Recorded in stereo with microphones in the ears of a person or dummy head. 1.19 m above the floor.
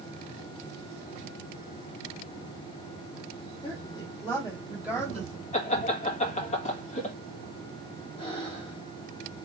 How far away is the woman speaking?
About 1.6 m.